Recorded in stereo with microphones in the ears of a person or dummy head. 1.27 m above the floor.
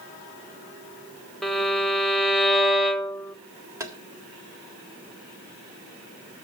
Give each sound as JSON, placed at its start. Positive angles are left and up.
{"t": 1.4, "sound": "a violin", "side_deg": 5, "distance_m": 0.8}
{"t": 3.8, "sound": "tapping", "side_deg": -10, "distance_m": 1.0}